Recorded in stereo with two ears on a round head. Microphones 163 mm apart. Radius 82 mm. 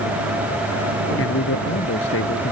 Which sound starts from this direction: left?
A man speaking, at 1.2 s.